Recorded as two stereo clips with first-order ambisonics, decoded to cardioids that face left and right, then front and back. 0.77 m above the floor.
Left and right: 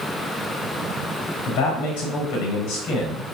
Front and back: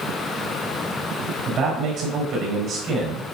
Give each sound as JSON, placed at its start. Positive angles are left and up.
{"t": 1.5, "sound": "a man speaking", "azimuth_deg": 120, "distance_m": 4.0}